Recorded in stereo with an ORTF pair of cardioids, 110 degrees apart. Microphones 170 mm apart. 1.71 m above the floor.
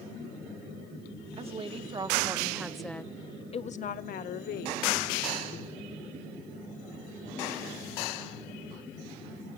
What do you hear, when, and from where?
1.3 s a woman speaking: 40° right, 2.5 m; by 5.0 s 80° left, 2.5 m